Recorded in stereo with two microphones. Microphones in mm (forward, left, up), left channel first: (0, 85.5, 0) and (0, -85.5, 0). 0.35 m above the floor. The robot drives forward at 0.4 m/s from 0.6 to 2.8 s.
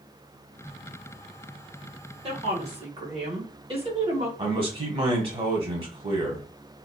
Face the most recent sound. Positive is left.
turn(degrees=-35)  # may be behind; listen again after turning